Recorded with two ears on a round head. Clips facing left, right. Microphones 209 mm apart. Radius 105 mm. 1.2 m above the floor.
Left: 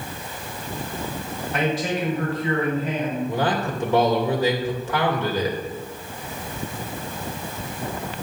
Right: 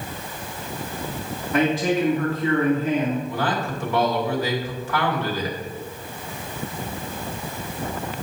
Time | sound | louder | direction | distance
1.5 | a man speaking | right 4 dB | 75° right (ahead or behind) | 2.5 m
3.3 | a man speaking | left 2 dB | 20° left (ahead or behind) | 2.5 m